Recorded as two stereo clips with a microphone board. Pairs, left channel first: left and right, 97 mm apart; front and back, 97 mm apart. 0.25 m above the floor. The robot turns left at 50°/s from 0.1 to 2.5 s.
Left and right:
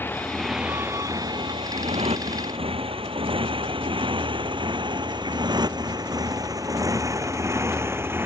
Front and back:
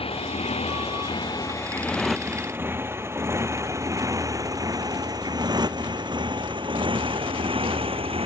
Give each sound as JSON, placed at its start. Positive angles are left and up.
{"t": 0.0, "sound": "a motorcycle", "azimuth_deg": 20}